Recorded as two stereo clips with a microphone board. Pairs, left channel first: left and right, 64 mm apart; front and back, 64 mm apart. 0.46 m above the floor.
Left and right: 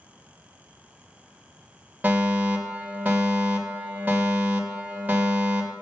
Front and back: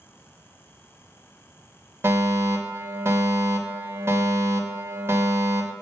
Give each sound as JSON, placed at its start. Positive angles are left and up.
{"t": 2.0, "sound": "a fire alarm", "azimuth_deg": -145, "distance_m": 2.5}